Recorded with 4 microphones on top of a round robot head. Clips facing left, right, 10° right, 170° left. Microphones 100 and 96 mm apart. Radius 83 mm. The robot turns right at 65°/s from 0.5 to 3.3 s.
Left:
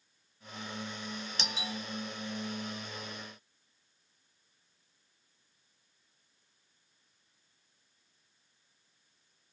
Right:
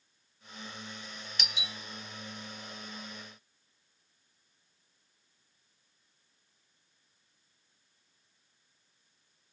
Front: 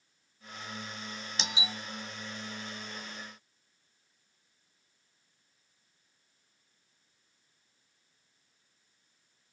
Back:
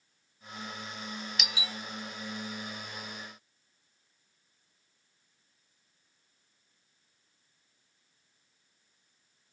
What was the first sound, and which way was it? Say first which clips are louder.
A doorbell: left 3 dB, front 1 dB; 40° left.